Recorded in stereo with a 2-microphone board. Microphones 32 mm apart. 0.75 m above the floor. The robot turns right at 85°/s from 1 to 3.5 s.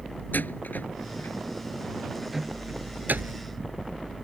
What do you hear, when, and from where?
0.3 s a door slam: 70° left (ahead or behind); by 3.4 s 85° right